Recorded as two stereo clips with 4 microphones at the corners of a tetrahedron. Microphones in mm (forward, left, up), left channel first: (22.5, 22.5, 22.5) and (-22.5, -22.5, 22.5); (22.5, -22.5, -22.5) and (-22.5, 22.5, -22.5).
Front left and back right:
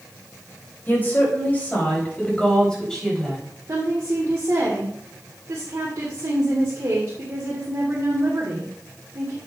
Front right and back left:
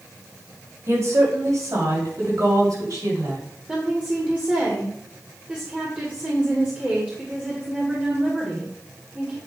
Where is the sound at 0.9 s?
105° left, 3.5 m; by 3.4 s 130° left, 4.5 m.